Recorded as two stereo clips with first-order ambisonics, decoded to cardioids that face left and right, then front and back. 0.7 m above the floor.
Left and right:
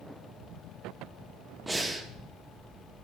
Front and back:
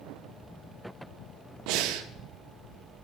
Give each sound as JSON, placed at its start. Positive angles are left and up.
{"t": 1.7, "sound": "breathing", "azimuth_deg": -170, "distance_m": 0.8}